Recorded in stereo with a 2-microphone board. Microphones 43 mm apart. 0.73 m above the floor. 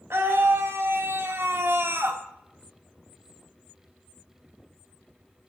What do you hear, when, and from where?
0.1 s a scream: 65° right (ahead or behind), 3 m; by 2.2 s 60° right (ahead or behind), 1.9 m